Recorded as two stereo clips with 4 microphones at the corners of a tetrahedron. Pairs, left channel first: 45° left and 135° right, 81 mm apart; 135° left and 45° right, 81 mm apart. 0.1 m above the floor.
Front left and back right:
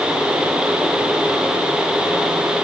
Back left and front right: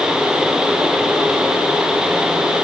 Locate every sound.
Only background noise.